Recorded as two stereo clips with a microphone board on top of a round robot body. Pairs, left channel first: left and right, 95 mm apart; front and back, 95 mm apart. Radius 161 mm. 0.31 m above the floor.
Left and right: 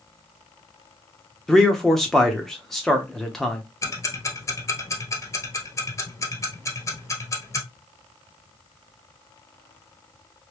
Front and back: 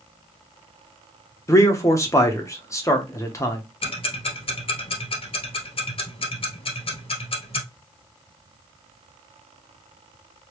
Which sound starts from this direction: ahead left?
Ticking, at 3.8 s.